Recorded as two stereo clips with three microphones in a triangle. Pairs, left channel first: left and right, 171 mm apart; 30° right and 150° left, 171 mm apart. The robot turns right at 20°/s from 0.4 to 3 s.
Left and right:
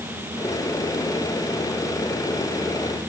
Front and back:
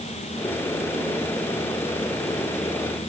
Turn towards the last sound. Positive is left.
No sound to turn to.